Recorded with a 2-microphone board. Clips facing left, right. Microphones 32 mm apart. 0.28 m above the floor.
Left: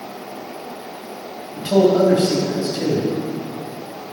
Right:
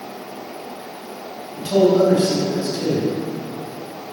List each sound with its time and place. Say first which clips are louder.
1.6 s a man speaking: even; 35° left (ahead or behind), 1.2 m